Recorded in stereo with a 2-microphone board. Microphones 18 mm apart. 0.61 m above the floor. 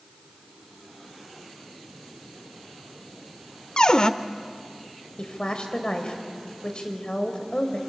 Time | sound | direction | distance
3.8 | a cupboard door | 45° left (ahead or behind) | 0.6 m
5.2 | a woman speaking | 55° left (ahead or behind) | 2.5 m